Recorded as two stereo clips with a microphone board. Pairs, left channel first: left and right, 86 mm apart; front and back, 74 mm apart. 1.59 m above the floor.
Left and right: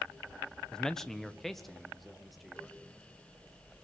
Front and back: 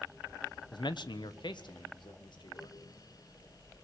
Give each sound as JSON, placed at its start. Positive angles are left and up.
{"t": 0.7, "sound": "a man speaking", "azimuth_deg": 10, "distance_m": 1.1}